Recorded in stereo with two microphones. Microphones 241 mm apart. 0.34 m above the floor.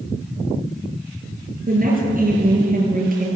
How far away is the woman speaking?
About 7.5 m.